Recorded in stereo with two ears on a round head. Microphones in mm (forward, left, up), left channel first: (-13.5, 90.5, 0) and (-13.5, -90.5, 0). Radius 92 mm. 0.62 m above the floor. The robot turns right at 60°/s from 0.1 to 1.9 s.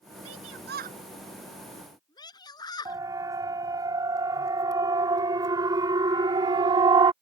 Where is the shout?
80° right; by 3.0 s 20° left (ahead or behind).